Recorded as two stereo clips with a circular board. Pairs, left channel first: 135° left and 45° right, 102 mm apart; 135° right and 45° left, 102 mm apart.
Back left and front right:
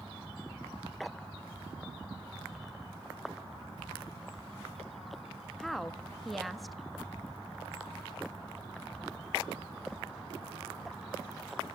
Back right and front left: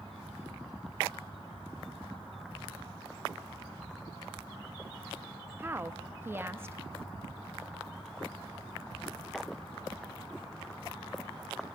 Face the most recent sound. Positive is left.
turn(degrees=45)